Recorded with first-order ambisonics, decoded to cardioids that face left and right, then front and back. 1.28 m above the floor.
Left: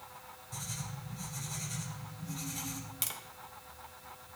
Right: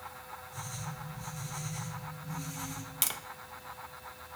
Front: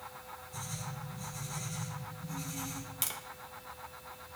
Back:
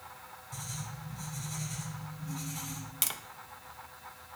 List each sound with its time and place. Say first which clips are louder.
0.5 s writing: left 1 dB, even; 135° left, 6 m
3.0 s tapping: right 5 dB, back 4 dB; 130° right, 0.5 m